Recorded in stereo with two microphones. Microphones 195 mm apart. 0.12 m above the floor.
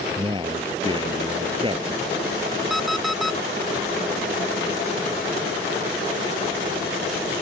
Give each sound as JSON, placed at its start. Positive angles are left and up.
{"t": 0.2, "sound": "a man speaking", "side_deg": -25}
{"t": 2.7, "sound": "an alarm clock", "side_deg": 0}